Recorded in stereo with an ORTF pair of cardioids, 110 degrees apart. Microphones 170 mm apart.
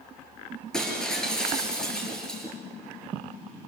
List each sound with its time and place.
0.7 s breaking glass: 5° left, 5 m